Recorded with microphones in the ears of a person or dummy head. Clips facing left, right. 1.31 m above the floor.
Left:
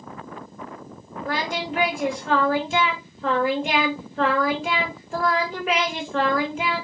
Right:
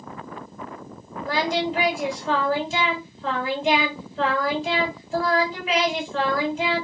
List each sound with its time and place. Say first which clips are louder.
1.2 s singing: right 4 dB; 45° left (ahead or behind), 2.5 m